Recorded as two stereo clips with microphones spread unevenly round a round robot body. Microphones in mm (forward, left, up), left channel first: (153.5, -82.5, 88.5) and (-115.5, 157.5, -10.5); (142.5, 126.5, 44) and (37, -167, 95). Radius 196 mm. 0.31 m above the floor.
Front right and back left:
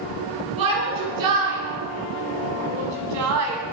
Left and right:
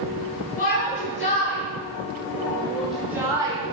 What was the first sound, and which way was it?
A shout, 130° left.